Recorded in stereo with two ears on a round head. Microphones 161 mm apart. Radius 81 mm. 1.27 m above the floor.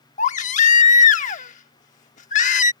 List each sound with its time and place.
0.2 s a baby crying: 45° left (ahead or behind)